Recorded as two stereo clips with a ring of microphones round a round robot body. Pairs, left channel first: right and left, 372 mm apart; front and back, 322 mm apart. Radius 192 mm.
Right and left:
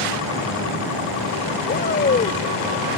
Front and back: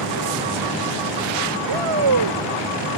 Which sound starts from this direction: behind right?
A shout, at 1.7 s.